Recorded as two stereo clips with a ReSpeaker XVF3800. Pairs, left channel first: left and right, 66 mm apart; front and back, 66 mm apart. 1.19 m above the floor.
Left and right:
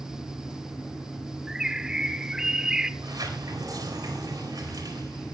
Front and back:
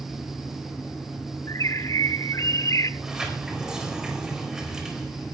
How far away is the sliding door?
About 4.5 m.